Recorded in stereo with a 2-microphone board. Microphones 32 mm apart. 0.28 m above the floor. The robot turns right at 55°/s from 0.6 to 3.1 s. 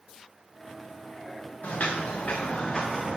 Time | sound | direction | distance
1.6 | footsteps | 60° left (ahead or behind) | 2.5 m